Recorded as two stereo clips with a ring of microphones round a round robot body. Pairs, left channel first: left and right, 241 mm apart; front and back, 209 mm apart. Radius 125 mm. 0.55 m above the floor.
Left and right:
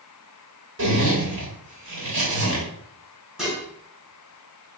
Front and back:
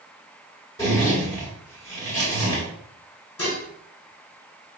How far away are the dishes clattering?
About 3 m.